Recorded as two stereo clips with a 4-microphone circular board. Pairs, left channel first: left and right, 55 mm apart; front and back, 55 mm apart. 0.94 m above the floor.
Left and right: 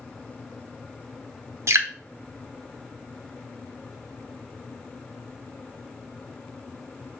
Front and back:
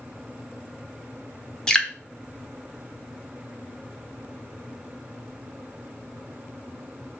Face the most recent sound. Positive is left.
turn(degrees=-75)